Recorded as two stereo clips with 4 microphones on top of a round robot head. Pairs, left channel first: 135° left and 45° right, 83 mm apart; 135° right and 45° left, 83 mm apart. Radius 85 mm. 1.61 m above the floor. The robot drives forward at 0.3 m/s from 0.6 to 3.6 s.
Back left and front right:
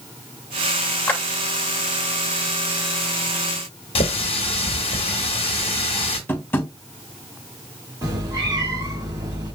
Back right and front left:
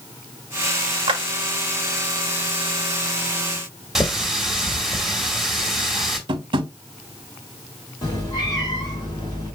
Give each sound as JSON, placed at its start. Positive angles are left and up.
{"t": 1.1, "sound": "a clap", "azimuth_deg": 65, "distance_m": 1.0}
{"t": 4.0, "sound": "a running tap", "azimuth_deg": 130, "distance_m": 1.2}
{"t": 6.3, "sound": "tapping", "azimuth_deg": 70, "distance_m": 0.8}
{"t": 8.0, "sound": "a cat meowing", "azimuth_deg": -95, "distance_m": 3.0}